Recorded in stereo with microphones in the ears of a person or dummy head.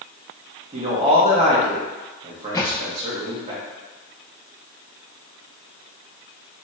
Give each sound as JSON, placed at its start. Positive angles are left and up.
{"t": 0.7, "sound": "a man speaking", "side_deg": -30, "distance_m": 1.4}
{"t": 2.5, "sound": "a thud", "side_deg": 20, "distance_m": 0.7}